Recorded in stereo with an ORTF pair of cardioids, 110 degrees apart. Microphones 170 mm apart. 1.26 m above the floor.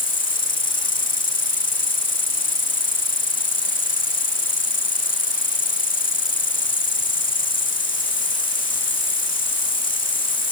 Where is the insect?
55° left.